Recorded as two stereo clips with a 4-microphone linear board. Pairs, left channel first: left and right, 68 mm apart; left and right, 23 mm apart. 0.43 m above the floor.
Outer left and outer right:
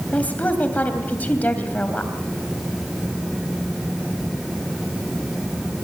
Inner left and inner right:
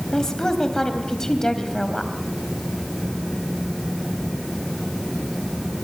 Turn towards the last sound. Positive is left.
turn(degrees=25)  # may be behind; listen again after turning